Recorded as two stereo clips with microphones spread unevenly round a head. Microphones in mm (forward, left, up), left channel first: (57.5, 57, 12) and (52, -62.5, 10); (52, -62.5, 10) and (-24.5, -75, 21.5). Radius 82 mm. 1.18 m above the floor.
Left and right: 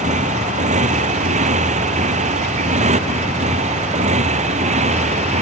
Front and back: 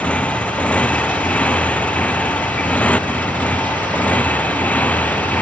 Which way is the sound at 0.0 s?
65° right.